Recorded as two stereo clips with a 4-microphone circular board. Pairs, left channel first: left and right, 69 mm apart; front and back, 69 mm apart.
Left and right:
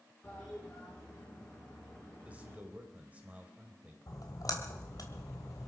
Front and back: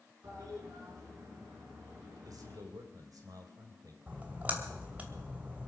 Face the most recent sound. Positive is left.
turn(degrees=115)